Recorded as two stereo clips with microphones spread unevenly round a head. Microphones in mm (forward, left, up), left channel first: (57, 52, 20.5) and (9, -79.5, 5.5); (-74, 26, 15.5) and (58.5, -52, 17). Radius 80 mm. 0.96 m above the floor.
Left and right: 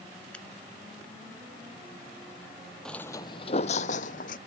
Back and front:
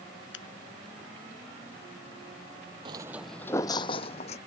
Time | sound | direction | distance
0.3 | a finger snap | 155° left | ?
2.9 | footsteps | straight ahead | ?